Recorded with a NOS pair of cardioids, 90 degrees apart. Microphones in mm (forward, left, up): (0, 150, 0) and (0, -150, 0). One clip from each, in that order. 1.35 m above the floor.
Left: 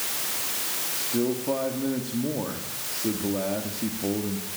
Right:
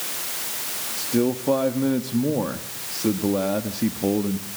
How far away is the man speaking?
About 2 m.